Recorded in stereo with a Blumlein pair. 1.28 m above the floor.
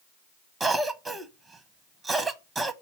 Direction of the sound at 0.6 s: 15° right.